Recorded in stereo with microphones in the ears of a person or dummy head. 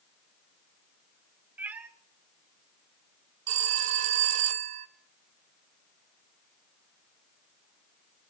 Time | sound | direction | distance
1.6 | a cat meowing | 10° right (ahead or behind) | 0.6 m
3.5 | a phone ringing | 40° right (ahead or behind) | 0.8 m